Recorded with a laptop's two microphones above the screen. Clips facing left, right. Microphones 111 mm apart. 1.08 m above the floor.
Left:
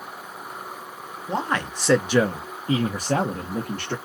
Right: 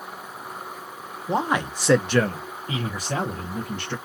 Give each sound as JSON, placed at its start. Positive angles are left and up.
{"t": 1.3, "sound": "a man speaking", "side_deg": -20, "distance_m": 0.8}